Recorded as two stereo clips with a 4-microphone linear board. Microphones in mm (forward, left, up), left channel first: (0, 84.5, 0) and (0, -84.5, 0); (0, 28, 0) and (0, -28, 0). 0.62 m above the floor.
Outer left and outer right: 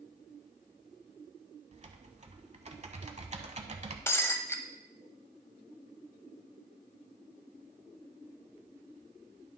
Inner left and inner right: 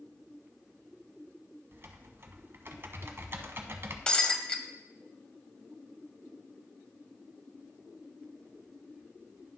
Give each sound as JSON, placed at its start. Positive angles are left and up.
{"t": 1.7, "sound": "typing on a keyboard", "side_deg": -40, "distance_m": 0.7}
{"t": 4.1, "sound": "breaking glass", "side_deg": 15, "distance_m": 0.7}